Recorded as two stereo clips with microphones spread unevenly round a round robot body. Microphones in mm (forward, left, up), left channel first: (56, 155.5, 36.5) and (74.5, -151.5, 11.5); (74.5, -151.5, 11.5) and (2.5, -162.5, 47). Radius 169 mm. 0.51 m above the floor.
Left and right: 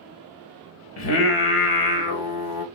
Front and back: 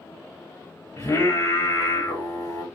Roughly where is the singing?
Left.